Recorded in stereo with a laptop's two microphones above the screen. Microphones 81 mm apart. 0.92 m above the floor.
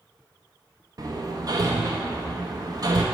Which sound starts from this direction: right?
Hammering, at 1.0 s.